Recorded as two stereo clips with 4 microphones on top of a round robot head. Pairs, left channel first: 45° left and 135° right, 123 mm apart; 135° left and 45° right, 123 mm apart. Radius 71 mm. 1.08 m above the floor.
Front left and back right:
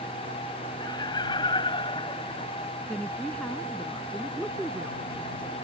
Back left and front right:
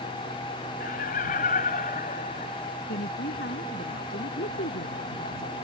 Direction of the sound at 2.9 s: 130° left.